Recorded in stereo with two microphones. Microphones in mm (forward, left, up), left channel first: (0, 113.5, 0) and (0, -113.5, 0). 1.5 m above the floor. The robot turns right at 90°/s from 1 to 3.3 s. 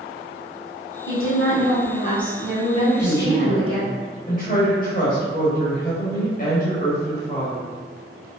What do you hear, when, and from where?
1.1 s a woman speaking: 55° left, 1.3 m; by 3.8 s 100° right, 1.3 m
2.8 s a woman speaking: 100° left, 1.0 m; by 7.7 s 145° left, 1.0 m